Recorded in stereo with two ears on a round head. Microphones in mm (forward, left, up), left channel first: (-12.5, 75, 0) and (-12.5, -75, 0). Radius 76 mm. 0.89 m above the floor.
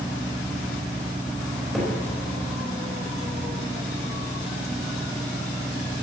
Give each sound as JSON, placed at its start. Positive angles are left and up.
{"t": 1.7, "sound": "a cupboard door", "side_deg": 5, "distance_m": 4.5}